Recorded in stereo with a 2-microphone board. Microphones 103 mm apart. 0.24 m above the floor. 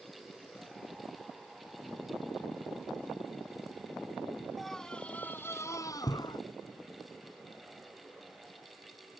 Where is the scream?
Centre (ahead or behind); by 6.4 s 45° left (ahead or behind).